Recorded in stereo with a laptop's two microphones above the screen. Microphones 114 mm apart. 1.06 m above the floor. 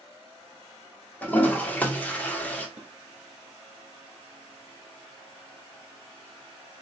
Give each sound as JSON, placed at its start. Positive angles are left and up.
{"t": 1.2, "sound": "a toilet flushing", "side_deg": 15, "distance_m": 1.0}
{"t": 2.8, "sound": "dishes clattering", "side_deg": -85, "distance_m": 1.1}